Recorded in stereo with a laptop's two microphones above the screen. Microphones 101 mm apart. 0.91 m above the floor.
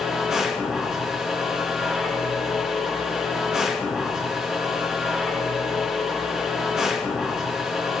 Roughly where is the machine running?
Centre.